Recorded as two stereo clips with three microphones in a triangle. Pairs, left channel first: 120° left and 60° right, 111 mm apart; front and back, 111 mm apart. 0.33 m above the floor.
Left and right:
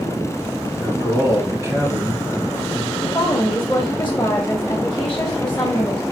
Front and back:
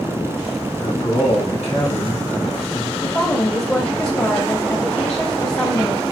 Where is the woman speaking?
60° left, 1.5 m.